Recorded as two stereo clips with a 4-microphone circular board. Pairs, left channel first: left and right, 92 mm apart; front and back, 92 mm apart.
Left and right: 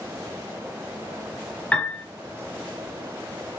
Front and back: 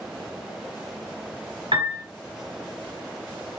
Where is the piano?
165° left, 1.4 m.